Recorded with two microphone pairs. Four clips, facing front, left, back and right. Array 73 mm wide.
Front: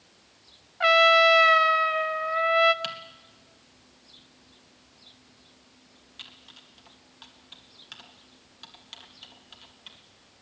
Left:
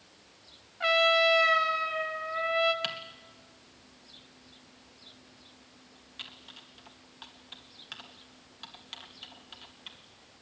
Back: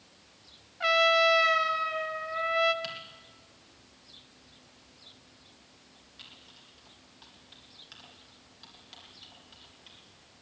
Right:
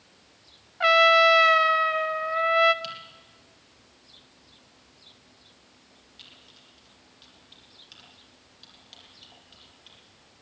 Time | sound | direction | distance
0.8 | a trumpet | 45° right | 1.0 m
2.8 | typing on a keyboard | 65° left | 2.5 m